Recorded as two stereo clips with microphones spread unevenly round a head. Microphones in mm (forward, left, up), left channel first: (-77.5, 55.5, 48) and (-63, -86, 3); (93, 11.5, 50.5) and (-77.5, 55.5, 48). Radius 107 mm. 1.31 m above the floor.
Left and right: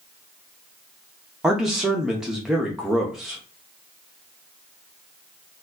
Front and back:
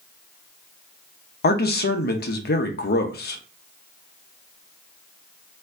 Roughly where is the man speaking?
Ahead.